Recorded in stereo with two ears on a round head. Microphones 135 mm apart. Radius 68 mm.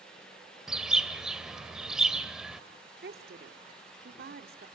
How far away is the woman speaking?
About 2.5 m.